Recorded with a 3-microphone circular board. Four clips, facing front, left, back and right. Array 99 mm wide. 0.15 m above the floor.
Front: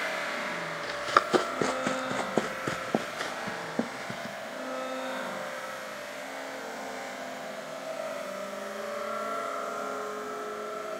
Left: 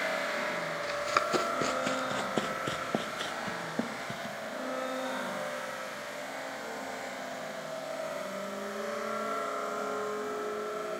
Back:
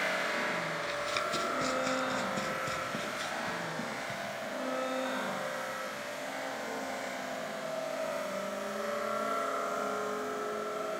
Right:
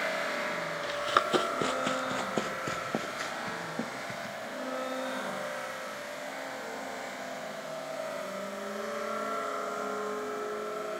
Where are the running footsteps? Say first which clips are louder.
Right 2 dB, front 7 dB; 15° right, 1.7 m; by 4.3 s 20° left, 3 m.